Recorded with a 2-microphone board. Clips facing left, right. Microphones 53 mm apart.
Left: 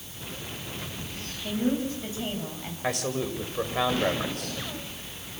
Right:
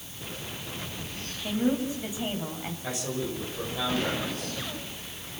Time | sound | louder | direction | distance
1.4 | a woman speaking | even | 15° right (ahead or behind) | 7 m
2.8 | a man speaking | left 4 dB | 60° left (ahead or behind) | 6 m